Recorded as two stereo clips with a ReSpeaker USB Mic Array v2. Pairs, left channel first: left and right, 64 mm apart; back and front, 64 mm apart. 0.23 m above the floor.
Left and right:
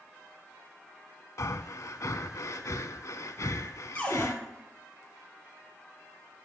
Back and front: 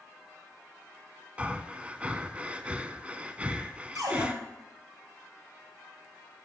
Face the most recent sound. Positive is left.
turn(degrees=15)